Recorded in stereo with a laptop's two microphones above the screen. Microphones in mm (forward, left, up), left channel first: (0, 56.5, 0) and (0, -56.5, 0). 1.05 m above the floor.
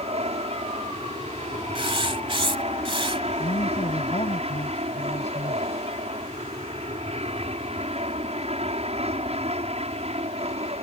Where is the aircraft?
60° right (ahead or behind).